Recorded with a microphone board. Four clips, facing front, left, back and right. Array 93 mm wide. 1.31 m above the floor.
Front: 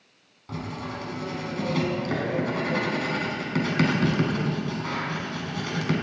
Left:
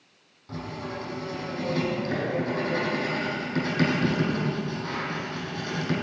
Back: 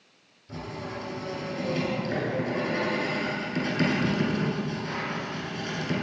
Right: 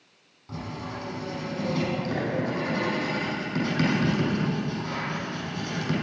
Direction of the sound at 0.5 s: 5° right.